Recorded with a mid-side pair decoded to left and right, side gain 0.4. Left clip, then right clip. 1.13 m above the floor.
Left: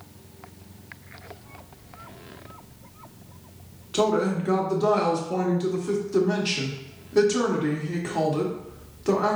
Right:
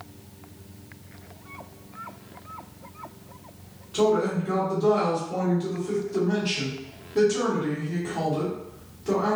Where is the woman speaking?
55° left, 1.4 m.